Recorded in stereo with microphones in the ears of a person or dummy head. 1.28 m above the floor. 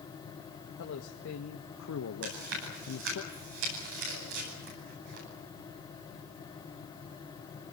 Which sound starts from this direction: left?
A man speaking, at 0.8 s.